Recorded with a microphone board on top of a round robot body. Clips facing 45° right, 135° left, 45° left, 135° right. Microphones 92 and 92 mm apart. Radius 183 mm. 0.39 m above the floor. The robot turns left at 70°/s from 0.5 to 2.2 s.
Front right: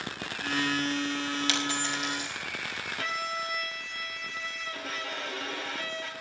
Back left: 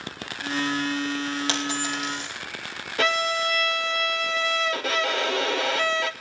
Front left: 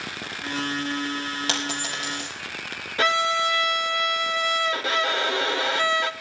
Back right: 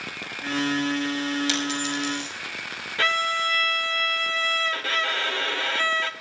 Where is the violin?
115° left, 0.6 m.